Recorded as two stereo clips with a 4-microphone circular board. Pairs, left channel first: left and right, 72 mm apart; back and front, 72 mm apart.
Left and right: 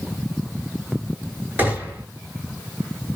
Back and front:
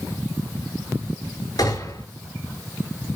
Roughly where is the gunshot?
Behind.